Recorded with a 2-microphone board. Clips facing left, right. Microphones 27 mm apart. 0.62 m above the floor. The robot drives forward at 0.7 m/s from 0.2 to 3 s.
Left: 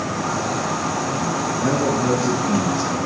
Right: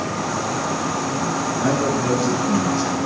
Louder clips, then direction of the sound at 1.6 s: Even; 60° right (ahead or behind).